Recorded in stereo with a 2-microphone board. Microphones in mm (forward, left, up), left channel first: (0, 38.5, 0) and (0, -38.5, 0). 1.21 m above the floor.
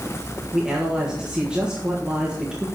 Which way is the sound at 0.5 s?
10° right (ahead or behind).